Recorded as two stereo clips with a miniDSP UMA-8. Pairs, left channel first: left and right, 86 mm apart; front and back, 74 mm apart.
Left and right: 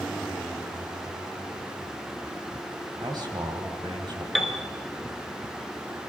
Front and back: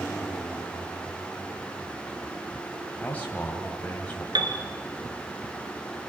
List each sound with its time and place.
3.0 s a man speaking: 70° right, 2.5 m
4.3 s a piano: straight behind, 1.8 m